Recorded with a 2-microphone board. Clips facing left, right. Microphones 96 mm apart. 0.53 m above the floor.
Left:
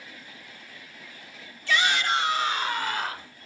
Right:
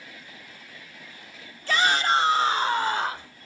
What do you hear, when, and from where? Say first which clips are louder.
1.7 s a shout: right 2 dB; 40° right (ahead or behind), 1.1 m; by 3.3 s 30° right (ahead or behind), 2.0 m